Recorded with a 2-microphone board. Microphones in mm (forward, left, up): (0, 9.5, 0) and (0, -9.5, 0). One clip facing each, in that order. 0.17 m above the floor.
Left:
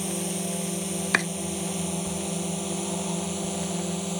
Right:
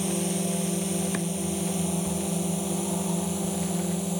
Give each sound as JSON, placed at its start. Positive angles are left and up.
{"t": 0.0, "sound": "a drone", "side_deg": 5}
{"t": 1.1, "sound": "chopping", "side_deg": 60}